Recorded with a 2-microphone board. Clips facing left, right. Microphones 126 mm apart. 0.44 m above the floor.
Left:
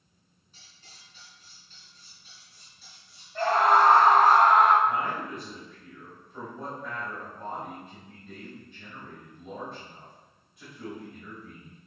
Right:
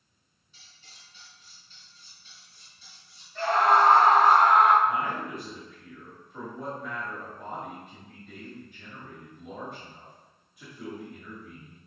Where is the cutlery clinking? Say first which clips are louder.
Left 1 dB; 45° left (ahead or behind), 3 m.